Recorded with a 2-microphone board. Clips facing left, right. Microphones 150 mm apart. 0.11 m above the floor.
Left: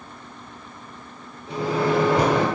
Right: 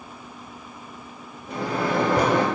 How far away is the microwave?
About 1.9 m.